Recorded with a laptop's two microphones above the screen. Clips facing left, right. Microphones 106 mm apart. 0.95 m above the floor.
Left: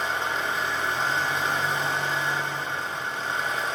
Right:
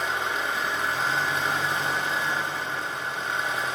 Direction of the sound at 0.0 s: 5° right (ahead or behind).